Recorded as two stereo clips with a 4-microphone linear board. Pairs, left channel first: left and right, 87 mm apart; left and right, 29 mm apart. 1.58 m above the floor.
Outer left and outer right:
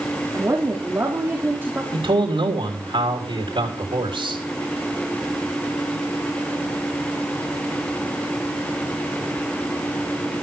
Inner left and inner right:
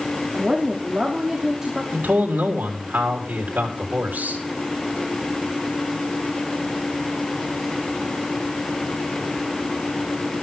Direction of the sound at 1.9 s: 85° right.